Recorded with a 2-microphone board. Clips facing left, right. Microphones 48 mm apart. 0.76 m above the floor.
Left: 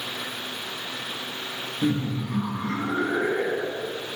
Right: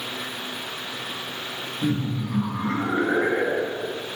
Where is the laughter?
30° left (ahead or behind), 1.2 m; by 4.0 s 60° right (ahead or behind), 2.0 m.